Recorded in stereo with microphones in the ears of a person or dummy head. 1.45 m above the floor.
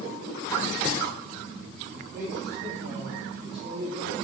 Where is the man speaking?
15° right (ahead or behind), 4.5 m; by 4.1 s 35° right (ahead or behind), 4 m.